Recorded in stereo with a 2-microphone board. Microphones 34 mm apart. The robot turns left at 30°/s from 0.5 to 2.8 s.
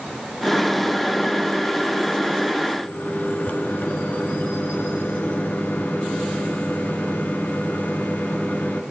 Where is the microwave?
55° left (ahead or behind), 1.5 m.